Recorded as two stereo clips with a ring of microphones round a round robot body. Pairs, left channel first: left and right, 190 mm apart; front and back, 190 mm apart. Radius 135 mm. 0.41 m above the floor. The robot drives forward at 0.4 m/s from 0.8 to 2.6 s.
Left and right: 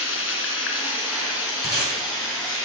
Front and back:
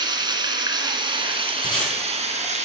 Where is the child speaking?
No child speaking in this recording.